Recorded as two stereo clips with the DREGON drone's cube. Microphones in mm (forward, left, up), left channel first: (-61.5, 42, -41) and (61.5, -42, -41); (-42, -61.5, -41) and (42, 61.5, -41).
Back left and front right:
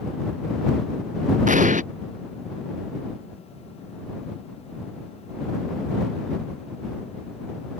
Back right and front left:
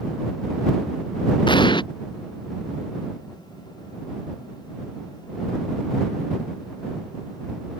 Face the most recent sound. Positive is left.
turn(degrees=-65)